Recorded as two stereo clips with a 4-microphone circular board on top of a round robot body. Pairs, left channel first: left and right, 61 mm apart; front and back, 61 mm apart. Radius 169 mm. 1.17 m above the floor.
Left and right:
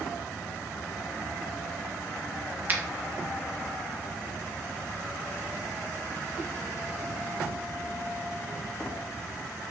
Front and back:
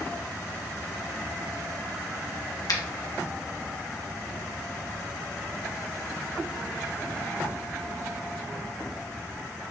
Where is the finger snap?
25° right, 1.3 m.